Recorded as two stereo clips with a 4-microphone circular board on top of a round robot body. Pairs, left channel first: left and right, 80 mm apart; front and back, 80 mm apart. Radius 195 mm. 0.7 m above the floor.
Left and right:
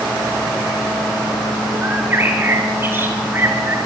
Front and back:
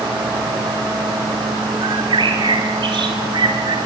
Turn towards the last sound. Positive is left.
turn(degrees=-155)